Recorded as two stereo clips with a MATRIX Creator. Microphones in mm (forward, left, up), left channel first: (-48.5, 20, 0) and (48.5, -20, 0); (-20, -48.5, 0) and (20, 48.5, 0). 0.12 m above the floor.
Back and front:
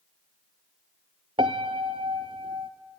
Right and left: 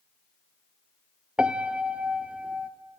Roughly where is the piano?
Ahead.